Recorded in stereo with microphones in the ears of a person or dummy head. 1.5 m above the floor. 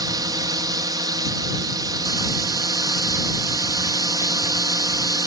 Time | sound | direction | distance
0.0 | a drone | 20° right (ahead or behind) | ?